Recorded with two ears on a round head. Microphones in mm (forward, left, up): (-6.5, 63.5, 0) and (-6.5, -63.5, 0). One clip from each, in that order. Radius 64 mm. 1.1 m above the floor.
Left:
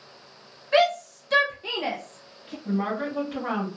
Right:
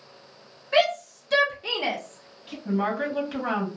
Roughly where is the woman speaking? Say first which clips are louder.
Right 2 dB; right.